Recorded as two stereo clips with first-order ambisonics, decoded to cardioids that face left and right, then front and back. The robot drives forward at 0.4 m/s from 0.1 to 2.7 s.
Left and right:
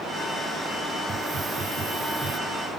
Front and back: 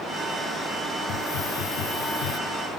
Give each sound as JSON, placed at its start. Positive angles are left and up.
{"t": 1.1, "sound": "a hiss", "azimuth_deg": -20}